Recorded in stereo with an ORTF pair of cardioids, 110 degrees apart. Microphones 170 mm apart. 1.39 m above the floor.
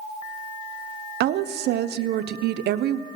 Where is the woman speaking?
65° right, 0.6 m.